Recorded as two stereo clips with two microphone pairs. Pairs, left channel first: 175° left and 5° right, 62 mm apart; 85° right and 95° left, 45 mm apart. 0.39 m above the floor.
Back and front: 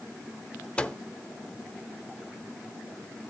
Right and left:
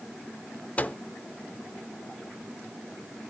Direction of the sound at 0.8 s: 120° right.